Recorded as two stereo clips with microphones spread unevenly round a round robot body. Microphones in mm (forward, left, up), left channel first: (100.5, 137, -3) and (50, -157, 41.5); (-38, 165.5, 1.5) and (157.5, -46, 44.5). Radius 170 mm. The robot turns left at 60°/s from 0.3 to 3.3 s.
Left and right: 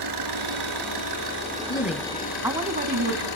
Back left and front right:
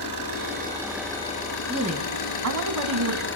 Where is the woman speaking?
30° left, 2.5 m; by 3.3 s 65° right, 2.5 m.